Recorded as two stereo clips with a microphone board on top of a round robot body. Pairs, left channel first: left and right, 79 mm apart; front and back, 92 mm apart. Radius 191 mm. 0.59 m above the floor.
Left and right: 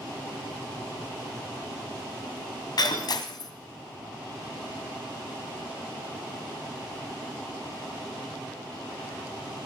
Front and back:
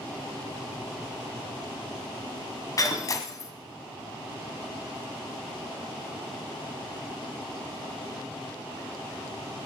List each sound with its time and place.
2.8 s breaking glass: 55° left, 1.4 m